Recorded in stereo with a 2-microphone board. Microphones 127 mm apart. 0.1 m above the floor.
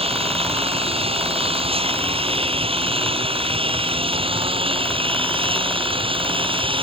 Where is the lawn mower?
50° right (ahead or behind); by 6.8 s 45° right (ahead or behind).